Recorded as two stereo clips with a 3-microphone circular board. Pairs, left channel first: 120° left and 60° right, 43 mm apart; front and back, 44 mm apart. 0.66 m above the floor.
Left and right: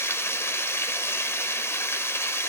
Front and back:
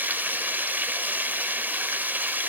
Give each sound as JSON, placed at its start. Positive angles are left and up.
{"t": 0.0, "sound": "running water", "azimuth_deg": 135, "distance_m": 2.0}